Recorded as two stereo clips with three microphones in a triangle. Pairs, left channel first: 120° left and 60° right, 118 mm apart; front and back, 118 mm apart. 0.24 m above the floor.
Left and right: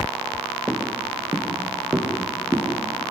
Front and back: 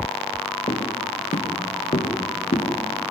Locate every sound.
0.7 s footsteps: 25° left, 4 m; by 2.7 s 10° left, 6 m